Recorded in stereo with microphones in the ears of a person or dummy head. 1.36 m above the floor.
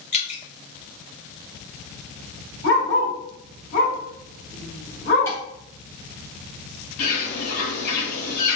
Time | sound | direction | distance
0.1 | dripping | 35° left (ahead or behind) | 0.8 m
2.6 | a dog barking | 55° left (ahead or behind) | 1.7 m
5.3 | dishes clattering | 15° left (ahead or behind) | 0.9 m
7.0 | a bird | 50° left (ahead or behind) | 1.8 m